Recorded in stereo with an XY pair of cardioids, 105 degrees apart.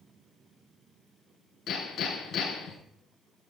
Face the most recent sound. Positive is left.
turn(degrees=65)